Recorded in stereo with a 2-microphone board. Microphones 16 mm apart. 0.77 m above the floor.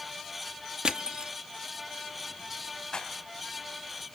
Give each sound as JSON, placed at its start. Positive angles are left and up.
{"t": 0.8, "sound": "crushing", "side_deg": -60, "distance_m": 1.1}
{"t": 2.9, "sound": "a rattle", "side_deg": 50, "distance_m": 3.5}